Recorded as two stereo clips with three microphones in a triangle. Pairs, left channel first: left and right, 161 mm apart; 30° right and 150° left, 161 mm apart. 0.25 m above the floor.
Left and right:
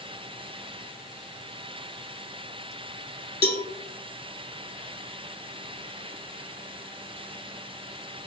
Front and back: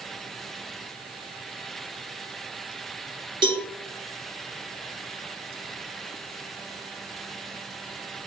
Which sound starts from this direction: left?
A cowbell, at 3.4 s.